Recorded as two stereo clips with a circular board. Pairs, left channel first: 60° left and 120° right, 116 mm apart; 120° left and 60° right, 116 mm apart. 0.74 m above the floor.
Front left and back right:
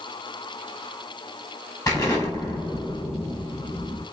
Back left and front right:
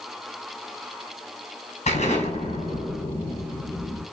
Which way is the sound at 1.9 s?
120° left.